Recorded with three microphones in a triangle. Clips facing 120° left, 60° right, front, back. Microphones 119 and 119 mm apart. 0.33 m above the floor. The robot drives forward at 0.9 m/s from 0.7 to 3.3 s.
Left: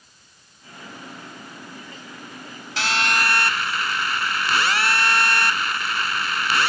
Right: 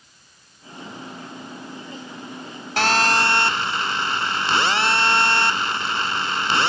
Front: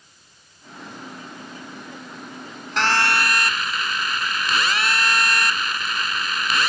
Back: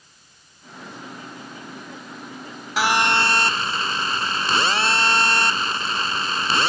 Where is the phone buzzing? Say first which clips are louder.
Right 5 dB, back 1 dB; 95° right; by 6.7 s 125° right.